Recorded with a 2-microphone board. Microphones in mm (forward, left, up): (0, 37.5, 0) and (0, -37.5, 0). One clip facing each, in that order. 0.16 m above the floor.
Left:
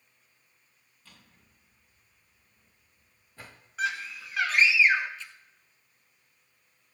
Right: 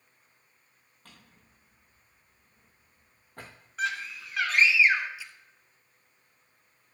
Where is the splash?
10° right (ahead or behind), 1.1 m.